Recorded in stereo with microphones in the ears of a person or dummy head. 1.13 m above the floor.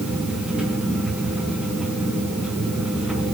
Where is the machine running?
5° right (ahead or behind), 3 m.